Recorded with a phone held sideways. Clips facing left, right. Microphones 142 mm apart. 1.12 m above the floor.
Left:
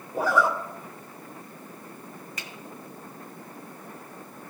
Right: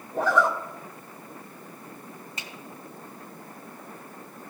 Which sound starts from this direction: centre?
A zipper, at 0.1 s.